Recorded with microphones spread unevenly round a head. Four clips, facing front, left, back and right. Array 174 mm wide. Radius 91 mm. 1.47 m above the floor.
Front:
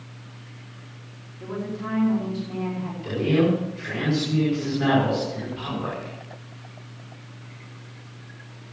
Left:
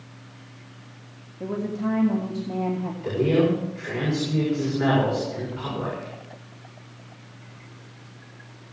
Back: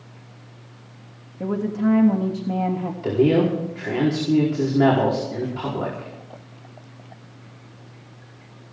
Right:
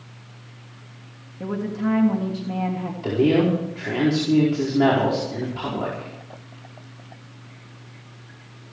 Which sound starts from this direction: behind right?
A man speaking, at 3.0 s.